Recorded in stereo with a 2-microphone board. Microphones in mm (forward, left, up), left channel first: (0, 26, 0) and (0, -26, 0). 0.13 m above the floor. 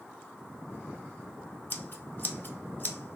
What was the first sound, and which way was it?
Scissors, 40° left (ahead or behind).